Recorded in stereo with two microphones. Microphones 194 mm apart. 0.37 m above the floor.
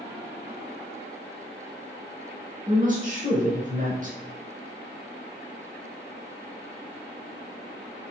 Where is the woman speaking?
40° right (ahead or behind), 1.1 m.